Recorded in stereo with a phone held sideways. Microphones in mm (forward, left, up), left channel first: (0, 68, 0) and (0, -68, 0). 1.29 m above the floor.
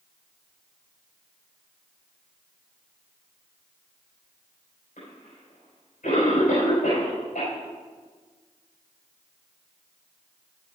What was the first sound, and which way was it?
A cough, 80° left.